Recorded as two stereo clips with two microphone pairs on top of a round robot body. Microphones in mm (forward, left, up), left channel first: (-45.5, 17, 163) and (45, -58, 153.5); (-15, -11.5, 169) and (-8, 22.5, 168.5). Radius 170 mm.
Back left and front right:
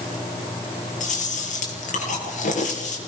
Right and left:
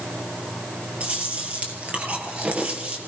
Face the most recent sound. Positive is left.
turn(degrees=125)